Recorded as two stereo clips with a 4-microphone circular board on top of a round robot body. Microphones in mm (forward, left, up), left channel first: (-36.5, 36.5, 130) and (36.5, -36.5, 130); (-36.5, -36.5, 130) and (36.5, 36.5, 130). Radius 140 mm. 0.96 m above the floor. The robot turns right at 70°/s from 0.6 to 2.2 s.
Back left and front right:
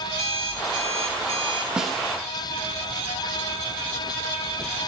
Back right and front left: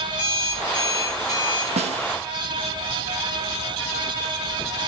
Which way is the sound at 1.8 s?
35° left.